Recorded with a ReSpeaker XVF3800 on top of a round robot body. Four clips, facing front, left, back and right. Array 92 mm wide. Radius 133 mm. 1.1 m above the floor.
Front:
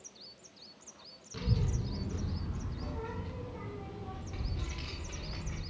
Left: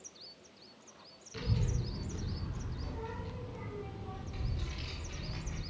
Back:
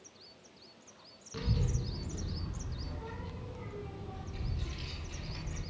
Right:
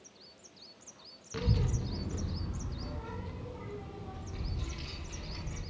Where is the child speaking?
100° right, 0.6 m; by 5.6 s 20° right, 2.5 m.